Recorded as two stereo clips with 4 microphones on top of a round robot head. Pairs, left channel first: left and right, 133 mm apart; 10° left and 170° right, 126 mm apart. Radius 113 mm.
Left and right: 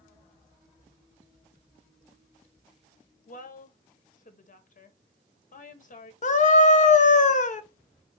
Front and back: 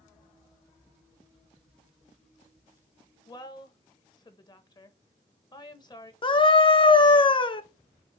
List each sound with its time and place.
3.3 s a woman speaking: 70° left, 1.2 m
6.2 s a scream: 60° left, 1.0 m